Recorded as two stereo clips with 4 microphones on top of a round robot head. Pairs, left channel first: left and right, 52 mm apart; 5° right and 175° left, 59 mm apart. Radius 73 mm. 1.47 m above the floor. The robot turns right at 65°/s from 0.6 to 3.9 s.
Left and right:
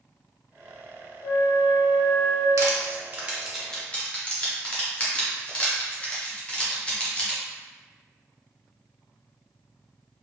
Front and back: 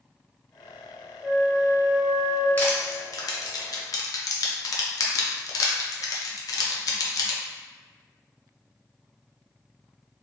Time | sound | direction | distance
1.2 | a flute | 75° left | 0.6 m
2.6 | crushing | 65° right | 0.5 m